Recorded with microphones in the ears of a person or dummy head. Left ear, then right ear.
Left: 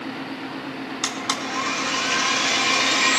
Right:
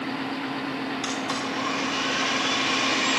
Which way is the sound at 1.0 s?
40° left (ahead or behind).